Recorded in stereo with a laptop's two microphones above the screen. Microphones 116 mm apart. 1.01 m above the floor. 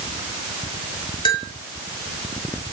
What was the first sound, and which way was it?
A bell, 45° left (ahead or behind).